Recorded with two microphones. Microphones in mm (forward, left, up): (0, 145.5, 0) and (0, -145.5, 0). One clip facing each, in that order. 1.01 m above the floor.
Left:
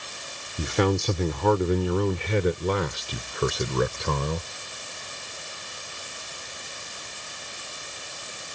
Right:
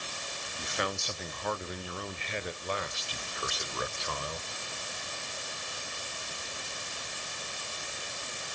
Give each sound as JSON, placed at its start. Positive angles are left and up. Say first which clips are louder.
{"t": 0.6, "sound": "a man speaking", "louder": "left 14 dB", "side_deg": 80}